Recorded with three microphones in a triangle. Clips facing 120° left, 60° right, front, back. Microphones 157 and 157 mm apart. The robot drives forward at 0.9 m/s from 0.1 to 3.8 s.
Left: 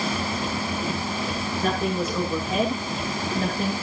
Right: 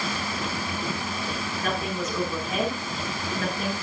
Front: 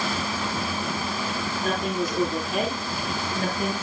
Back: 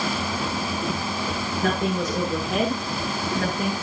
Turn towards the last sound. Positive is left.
turn(degrees=175)